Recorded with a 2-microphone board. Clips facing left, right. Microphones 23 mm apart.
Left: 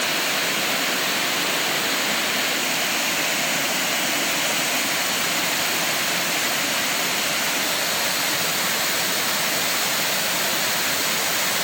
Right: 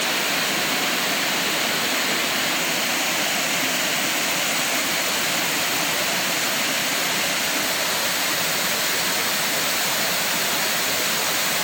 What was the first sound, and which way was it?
Only background noise.